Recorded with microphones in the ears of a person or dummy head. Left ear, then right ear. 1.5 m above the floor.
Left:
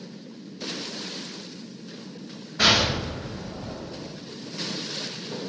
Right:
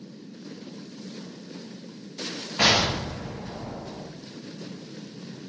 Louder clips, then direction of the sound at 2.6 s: Left 1 dB; 40° right (ahead or behind).